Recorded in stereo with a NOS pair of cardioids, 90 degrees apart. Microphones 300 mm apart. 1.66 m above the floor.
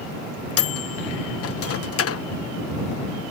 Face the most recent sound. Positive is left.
turn(degrees=50)